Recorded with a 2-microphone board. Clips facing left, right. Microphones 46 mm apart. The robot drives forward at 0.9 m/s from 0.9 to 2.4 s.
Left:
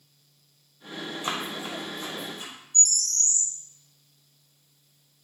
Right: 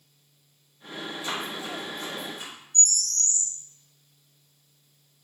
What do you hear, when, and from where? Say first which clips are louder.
1.2 s running footsteps: left 1 dB; 55° left (ahead or behind), 0.9 m; by 2.5 s 10° right (ahead or behind), 2 m
2.7 s a bird: even; 15° right (ahead or behind), 1.9 m